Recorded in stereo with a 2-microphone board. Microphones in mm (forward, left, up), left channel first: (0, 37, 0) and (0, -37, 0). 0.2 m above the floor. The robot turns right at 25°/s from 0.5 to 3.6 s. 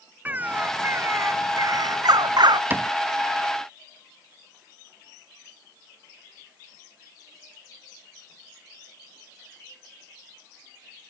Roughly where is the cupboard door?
Right.